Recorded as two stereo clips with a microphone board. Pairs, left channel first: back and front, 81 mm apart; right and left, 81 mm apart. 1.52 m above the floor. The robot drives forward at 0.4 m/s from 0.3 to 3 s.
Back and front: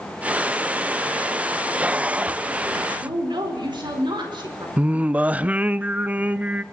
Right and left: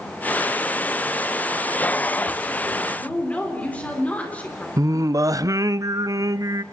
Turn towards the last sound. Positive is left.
turn(degrees=70)